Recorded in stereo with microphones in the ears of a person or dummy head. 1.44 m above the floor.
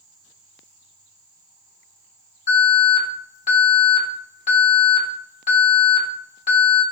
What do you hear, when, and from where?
2.5 s an alarm: 45° left (ahead or behind), 4 m